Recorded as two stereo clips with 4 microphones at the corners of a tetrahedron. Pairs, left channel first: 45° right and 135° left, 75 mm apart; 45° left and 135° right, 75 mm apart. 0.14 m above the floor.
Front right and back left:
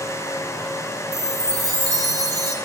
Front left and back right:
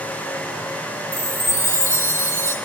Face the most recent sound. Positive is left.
turn(degrees=95)